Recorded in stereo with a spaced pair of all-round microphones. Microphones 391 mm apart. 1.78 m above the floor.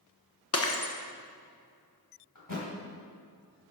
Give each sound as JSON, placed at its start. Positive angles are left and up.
{"t": 0.5, "sound": "breaking glass", "side_deg": 40, "distance_m": 1.1}
{"t": 2.4, "sound": "a thud", "side_deg": 55, "distance_m": 3.0}